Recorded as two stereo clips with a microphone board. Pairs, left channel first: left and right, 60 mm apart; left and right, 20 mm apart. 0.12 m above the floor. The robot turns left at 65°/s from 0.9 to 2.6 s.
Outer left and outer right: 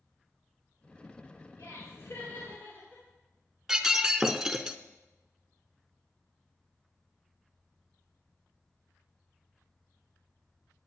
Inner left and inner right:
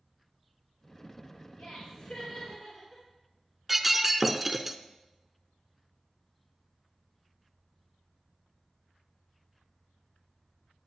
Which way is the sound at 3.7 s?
10° right (ahead or behind).